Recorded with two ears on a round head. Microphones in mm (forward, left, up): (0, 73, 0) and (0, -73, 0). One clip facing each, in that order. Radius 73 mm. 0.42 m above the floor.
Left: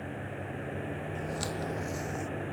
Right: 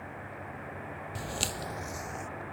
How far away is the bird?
I don't hear a bird.